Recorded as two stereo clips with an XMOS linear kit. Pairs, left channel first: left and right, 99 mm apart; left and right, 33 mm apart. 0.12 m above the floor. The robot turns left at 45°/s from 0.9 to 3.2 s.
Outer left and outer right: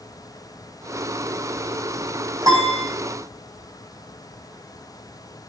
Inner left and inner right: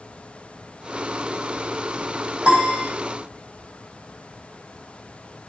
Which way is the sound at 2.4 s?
35° right (ahead or behind).